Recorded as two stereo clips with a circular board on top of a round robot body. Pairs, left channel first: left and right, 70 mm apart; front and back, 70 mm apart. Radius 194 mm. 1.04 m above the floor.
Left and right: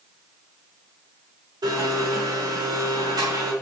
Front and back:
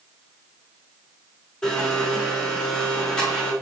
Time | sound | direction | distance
1.6 | a blender | 75° right | 4.5 m